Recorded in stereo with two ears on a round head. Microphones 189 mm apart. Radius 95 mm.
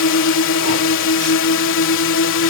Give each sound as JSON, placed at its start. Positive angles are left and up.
{"t": 0.0, "sound": "a drone", "side_deg": 65}